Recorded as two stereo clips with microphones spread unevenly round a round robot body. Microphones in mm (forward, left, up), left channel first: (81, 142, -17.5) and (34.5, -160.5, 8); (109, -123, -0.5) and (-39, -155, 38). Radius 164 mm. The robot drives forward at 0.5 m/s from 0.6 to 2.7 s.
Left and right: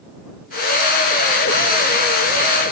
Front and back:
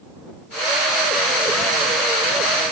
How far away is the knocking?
No knocking in this recording.